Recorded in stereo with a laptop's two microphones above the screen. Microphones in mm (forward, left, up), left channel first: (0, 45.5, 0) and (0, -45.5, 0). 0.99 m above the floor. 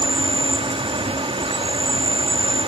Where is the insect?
75° right (ahead or behind).